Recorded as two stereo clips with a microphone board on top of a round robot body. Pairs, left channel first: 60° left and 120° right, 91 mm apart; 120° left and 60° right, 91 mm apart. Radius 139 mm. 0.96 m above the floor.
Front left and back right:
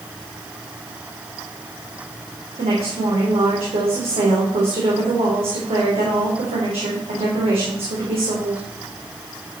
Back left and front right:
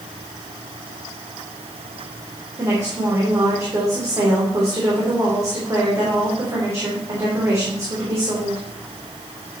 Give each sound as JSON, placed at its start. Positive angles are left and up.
{"t": 2.6, "sound": "a woman speaking", "azimuth_deg": -120, "distance_m": 3.5}